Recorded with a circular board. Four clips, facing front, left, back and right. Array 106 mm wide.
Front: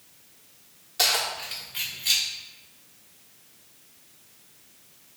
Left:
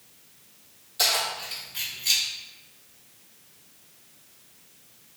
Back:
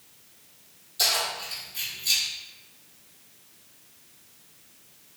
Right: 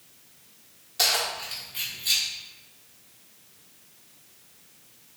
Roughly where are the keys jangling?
Ahead right.